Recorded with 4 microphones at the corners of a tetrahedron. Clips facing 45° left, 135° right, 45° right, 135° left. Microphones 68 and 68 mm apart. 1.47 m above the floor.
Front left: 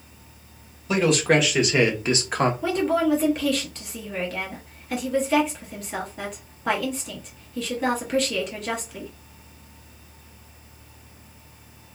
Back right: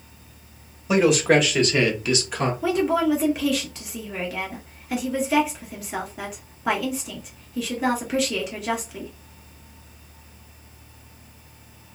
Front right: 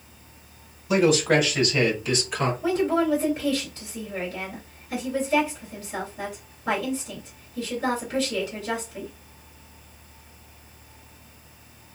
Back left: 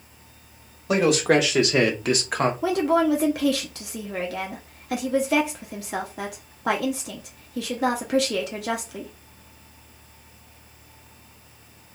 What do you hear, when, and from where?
0.9 s a man speaking: 145° left, 1.3 m; by 2.5 s 80° left, 0.8 m
2.6 s a woman speaking: 140° left, 0.7 m